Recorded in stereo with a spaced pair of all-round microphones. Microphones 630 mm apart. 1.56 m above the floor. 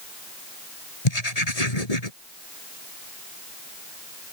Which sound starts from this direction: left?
Writing, at 1.1 s.